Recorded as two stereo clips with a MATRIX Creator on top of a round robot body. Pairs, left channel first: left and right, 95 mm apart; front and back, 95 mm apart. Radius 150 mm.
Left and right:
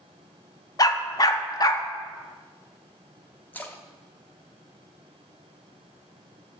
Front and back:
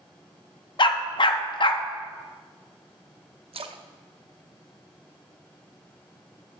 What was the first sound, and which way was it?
A dog barking, 40° left.